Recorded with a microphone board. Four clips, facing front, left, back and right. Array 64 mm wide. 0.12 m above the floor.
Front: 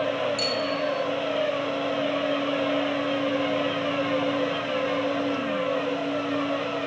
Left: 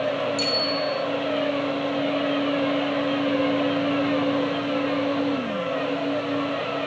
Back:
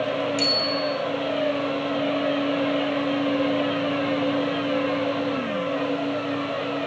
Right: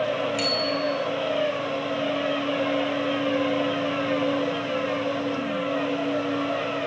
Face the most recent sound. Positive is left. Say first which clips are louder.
# even, back 1 dB
turn(degrees=-120)